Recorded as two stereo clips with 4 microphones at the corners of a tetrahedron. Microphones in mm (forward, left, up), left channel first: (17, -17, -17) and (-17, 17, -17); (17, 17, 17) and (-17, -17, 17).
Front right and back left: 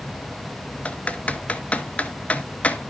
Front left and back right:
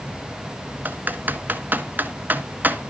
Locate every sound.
0.8 s typing on a keyboard: 100° right, 0.8 m